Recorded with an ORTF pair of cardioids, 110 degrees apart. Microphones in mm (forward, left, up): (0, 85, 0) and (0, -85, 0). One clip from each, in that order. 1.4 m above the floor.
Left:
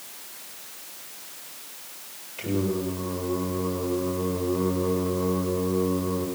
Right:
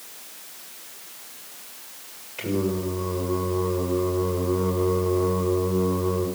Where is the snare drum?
No snare drum in this recording.